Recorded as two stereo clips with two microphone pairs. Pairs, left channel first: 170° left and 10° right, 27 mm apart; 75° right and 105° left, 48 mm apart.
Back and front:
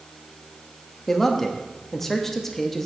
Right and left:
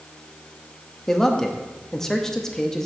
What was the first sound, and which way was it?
A man speaking, 140° right.